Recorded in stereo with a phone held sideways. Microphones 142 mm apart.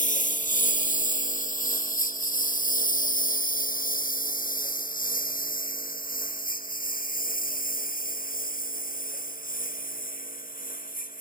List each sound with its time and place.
0.0 s a lawn mower: 65° left (ahead or behind); by 11.2 s 85° left